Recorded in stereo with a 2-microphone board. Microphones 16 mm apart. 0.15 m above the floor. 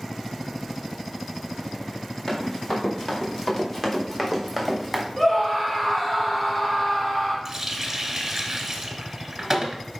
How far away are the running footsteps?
About 4 m.